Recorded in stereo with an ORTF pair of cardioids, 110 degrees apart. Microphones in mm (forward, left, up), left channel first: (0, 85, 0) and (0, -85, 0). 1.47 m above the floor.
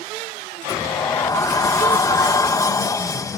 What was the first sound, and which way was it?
A sliding door, 20° left.